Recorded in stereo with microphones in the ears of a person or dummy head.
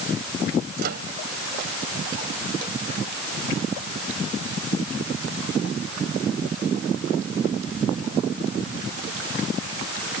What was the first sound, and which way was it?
A microwave, 60° right (ahead or behind).